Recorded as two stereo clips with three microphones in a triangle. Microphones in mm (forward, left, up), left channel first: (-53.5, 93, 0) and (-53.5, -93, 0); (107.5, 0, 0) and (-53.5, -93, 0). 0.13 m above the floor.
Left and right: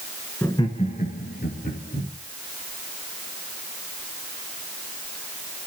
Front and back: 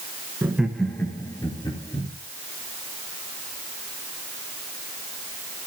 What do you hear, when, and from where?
0.4 s laughter: 150° left, 1.3 m; by 2.1 s 90° left, 3 m